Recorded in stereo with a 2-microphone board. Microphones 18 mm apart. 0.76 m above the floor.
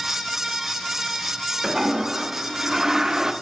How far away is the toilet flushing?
About 0.5 m.